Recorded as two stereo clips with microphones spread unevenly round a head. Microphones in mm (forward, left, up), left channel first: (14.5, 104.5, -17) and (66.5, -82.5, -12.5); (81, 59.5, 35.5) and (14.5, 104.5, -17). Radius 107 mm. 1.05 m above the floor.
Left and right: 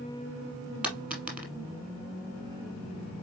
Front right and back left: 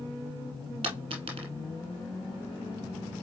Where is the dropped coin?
155° right, 1.2 m.